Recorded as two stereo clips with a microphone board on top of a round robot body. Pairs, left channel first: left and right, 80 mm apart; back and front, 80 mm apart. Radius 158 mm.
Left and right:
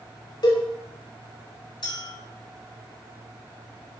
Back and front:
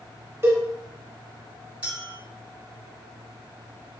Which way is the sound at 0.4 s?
60° left.